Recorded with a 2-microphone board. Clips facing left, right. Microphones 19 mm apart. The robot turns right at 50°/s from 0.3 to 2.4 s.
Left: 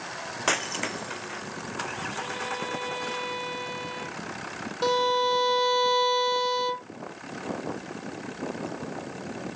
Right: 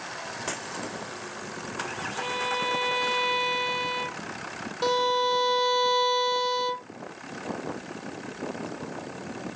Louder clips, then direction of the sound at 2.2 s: Right 7 dB; 45° right (ahead or behind).